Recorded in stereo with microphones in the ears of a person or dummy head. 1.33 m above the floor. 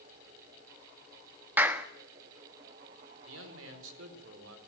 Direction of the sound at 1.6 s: 10° right (ahead or behind).